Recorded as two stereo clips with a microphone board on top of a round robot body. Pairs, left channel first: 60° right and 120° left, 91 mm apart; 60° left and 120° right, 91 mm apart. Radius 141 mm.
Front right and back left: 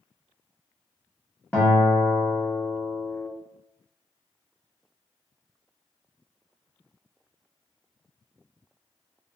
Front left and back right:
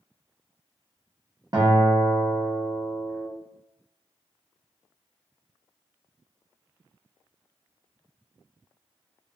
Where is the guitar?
135° right, 1.3 m.